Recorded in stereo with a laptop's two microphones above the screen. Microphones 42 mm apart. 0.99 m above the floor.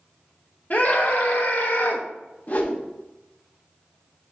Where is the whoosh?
40° left (ahead or behind), 1.0 m.